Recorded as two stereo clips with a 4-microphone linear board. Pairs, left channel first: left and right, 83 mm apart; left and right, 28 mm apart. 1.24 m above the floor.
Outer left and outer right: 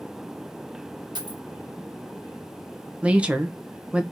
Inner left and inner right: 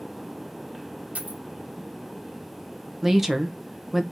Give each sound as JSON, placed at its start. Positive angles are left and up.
{"t": 1.1, "sound": "a dropped coin", "side_deg": -65, "distance_m": 1.1}
{"t": 3.0, "sound": "a woman speaking", "side_deg": -15, "distance_m": 0.8}